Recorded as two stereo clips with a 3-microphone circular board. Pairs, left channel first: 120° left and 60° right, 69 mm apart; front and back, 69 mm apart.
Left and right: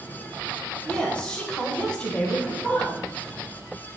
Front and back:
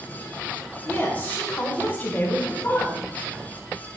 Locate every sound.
0.8 s a woman speaking: 50° left, 1.7 m